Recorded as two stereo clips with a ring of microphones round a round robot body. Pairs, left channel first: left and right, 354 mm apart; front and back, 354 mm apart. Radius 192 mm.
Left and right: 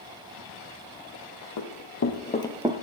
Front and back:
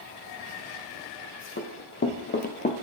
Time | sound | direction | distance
1.6 | running footsteps | 60° left | 1.7 m